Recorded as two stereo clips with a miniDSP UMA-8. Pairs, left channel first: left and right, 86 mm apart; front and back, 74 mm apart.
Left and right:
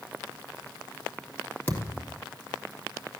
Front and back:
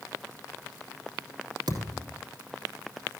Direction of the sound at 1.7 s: 155° left.